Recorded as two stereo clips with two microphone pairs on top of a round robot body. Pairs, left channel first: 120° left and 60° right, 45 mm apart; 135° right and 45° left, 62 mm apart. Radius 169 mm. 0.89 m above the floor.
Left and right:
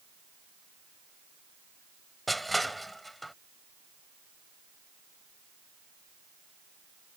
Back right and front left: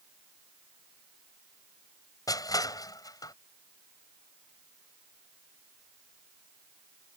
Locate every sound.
2.3 s crushing: 155° right